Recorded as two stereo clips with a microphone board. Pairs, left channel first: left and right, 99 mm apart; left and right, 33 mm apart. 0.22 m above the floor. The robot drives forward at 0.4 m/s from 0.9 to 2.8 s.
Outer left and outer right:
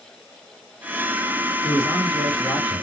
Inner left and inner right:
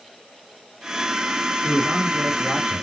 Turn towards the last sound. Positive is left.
turn(degrees=10)  # may be behind; listen again after turning